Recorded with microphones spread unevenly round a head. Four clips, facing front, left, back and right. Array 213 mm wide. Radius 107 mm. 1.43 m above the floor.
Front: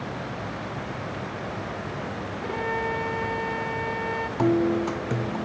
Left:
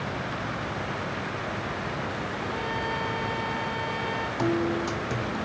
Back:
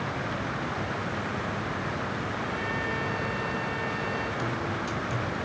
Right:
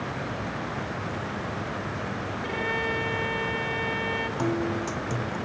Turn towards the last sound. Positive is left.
turn(degrees=5)